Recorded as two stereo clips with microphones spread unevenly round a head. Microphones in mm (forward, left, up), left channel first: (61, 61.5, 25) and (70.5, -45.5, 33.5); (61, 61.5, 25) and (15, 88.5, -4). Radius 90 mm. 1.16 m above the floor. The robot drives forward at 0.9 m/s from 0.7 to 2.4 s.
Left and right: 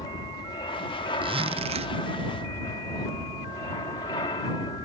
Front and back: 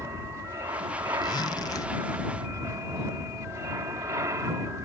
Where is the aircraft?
155° left.